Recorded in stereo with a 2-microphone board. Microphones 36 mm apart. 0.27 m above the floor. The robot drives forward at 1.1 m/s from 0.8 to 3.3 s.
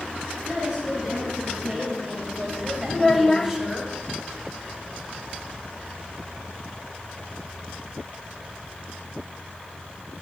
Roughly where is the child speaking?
Centre.